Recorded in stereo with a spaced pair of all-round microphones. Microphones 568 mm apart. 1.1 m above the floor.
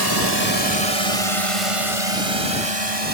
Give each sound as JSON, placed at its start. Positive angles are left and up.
{"t": 0.0, "sound": "a drone", "side_deg": -40}